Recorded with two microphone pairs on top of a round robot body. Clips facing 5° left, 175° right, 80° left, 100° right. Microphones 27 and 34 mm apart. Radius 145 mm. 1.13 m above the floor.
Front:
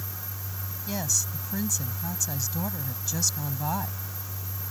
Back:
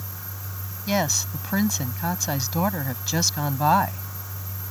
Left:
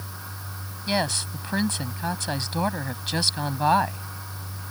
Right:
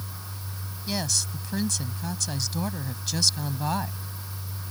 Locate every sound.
0.9 s a woman speaking: 135° left